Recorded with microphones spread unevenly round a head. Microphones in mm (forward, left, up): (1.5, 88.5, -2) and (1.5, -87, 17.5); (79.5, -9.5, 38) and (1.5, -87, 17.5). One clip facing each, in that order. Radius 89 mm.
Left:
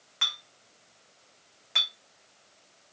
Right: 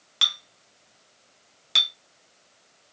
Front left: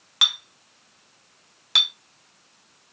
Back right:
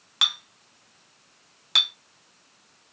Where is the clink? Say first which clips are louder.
Right 3 dB, front left 1 dB; 50° right, 0.5 m.